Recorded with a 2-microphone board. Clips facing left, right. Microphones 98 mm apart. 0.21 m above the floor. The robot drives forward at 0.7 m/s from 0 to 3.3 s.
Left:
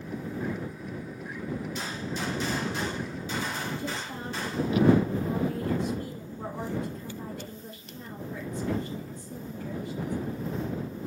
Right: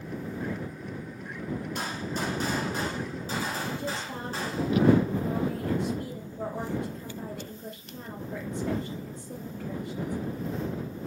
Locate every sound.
1.8 s a gunshot: 55° right (ahead or behind), 2 m; by 4.7 s 40° right (ahead or behind), 3 m
3.8 s a woman speaking: 65° right (ahead or behind), 3.5 m